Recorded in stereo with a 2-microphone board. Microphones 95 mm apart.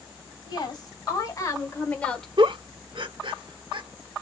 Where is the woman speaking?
55° left (ahead or behind), 2.5 m; by 2.3 s 5° left (ahead or behind), 1.4 m.